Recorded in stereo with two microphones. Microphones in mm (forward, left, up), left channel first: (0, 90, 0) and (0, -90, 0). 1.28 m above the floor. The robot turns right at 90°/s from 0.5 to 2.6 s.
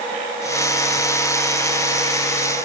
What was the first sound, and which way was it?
Only background noise.